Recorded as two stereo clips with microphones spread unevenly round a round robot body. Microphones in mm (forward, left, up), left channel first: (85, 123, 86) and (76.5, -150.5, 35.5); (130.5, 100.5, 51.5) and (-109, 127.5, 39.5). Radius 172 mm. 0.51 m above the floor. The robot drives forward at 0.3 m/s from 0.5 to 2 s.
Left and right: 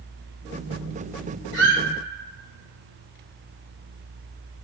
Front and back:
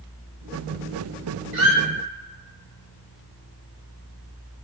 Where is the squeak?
150° right, 0.9 m; by 1.8 s 155° right, 1.0 m.